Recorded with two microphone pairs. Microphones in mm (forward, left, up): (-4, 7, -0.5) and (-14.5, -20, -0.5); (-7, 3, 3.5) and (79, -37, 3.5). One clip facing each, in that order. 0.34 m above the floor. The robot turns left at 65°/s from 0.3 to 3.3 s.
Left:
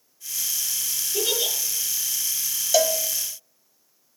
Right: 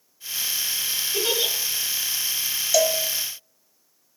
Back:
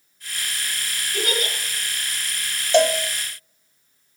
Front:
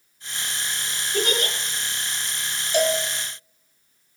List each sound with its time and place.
1.1 s a giggle: 85° right, 4 m; by 1.5 s 110° right, 4 m
2.7 s a cowbell: 145° left, 0.7 m; by 3.0 s 130° left, 0.7 m